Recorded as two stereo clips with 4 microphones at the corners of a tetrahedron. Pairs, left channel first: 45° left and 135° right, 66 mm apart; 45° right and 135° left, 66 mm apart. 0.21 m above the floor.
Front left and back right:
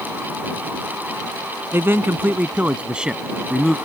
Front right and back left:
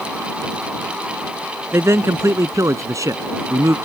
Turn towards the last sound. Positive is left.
turn(degrees=130)